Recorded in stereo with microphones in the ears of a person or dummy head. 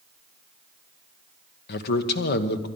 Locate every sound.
1.7 s a man speaking: 55° left (ahead or behind), 1.2 m